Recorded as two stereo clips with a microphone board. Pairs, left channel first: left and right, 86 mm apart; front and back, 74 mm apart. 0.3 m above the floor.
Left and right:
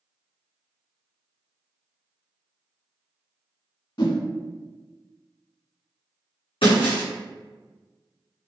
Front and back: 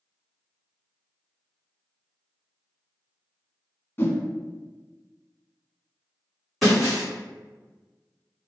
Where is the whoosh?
60° left, 0.6 m.